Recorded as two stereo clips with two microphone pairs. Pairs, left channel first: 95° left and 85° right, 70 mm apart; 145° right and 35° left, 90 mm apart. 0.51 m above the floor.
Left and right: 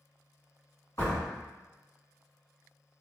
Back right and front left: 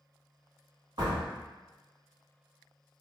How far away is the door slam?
About 1.6 m.